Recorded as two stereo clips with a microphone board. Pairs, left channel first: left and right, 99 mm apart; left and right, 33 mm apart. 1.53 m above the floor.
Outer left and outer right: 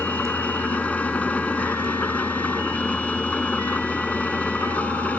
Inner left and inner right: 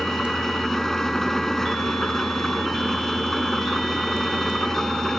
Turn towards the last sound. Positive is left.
turn(degrees=15)  # may be behind; listen again after turning